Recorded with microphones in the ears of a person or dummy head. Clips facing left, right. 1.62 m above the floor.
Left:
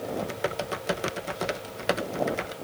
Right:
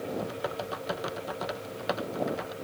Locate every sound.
0.1 s typing on a keyboard: 30° left (ahead or behind)